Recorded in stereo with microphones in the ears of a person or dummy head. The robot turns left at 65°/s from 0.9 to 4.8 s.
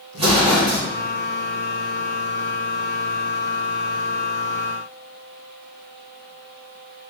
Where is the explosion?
35° right (ahead or behind), 1.3 m.